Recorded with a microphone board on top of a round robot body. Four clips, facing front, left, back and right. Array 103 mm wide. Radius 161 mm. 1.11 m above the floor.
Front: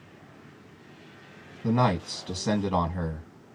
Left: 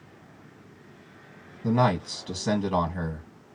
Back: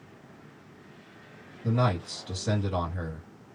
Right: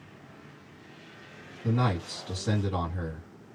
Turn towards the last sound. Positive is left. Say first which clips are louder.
# left 6 dB, front 3 dB
turn(degrees=40)